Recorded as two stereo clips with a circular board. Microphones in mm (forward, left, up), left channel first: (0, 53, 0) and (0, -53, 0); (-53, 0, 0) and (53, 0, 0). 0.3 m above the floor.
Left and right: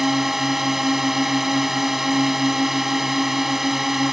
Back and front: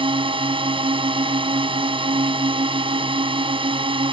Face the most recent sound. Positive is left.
turn(degrees=-5)